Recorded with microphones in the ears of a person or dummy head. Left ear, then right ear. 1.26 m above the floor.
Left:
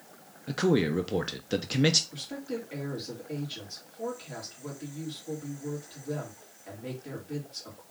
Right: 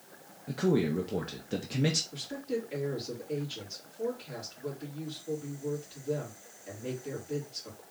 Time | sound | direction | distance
0.5 | a man speaking | 30° left (ahead or behind) | 0.5 m
2.1 | a woman speaking | 10° left (ahead or behind) | 3 m